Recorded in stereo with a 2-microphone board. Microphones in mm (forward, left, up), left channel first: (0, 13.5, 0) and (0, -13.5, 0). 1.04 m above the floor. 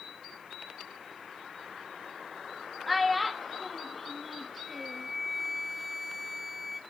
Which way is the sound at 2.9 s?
5° right (ahead or behind).